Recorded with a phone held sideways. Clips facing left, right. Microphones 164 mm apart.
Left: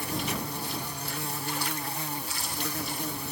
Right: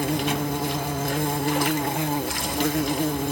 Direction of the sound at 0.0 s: 70° right (ahead or behind).